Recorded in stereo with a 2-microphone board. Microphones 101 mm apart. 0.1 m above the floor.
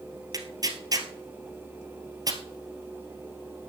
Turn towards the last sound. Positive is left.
turn(degrees=-40)  # may be behind; listen again after turning